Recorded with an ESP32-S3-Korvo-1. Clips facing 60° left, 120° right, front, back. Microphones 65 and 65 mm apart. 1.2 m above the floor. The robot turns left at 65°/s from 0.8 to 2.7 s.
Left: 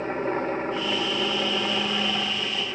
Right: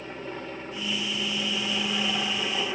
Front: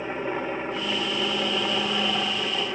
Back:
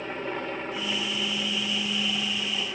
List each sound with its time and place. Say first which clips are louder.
0.0 s a helicopter: left 10 dB, front 3 dB; 70° left; by 2.8 s 55° right